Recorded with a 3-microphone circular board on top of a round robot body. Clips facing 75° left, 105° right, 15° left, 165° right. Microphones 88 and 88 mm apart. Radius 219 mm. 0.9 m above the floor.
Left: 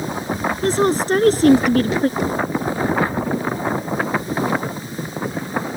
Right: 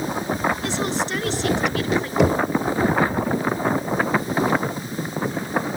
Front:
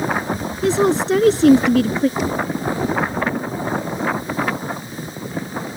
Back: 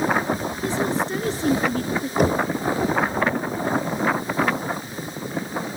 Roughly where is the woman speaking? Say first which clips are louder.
Left 7 dB, front 9 dB; ahead left.